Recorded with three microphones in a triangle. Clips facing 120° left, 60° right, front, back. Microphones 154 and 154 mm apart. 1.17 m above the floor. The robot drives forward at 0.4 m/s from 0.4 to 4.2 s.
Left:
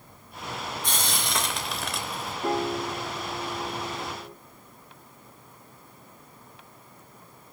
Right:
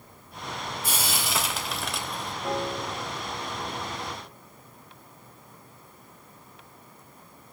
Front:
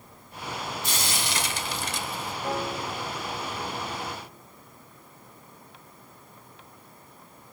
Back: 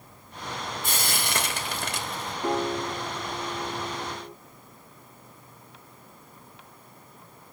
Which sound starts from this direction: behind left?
A piano, at 2.4 s.